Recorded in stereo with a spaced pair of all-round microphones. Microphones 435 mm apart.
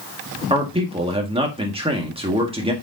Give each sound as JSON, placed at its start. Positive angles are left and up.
{"t": 0.5, "sound": "a man speaking", "side_deg": -10, "distance_m": 1.7}